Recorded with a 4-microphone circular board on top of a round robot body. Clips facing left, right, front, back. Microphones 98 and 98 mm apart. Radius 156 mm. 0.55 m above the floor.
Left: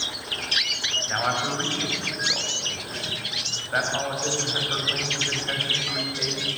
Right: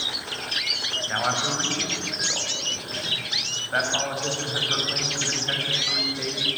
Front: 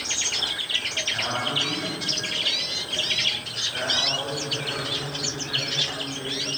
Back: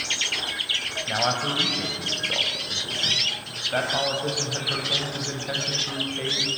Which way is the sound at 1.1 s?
Straight behind.